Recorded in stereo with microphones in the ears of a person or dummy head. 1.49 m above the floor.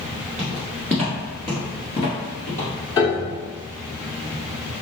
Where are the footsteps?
Centre (ahead or behind), 1.7 m; by 2.7 s 35° left (ahead or behind), 1.7 m.